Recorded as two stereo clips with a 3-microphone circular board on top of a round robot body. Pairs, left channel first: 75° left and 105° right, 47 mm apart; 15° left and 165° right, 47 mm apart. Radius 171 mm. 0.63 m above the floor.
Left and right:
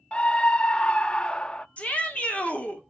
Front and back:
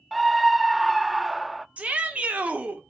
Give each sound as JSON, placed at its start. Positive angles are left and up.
{"t": 0.1, "sound": "a scream", "azimuth_deg": 105, "distance_m": 0.5}
{"t": 1.8, "sound": "a shout", "azimuth_deg": 135, "distance_m": 2.5}